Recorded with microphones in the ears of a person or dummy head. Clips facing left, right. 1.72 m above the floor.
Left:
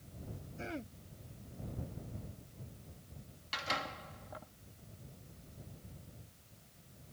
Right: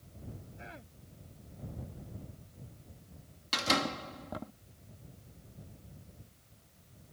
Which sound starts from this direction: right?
A door slam, at 3.5 s.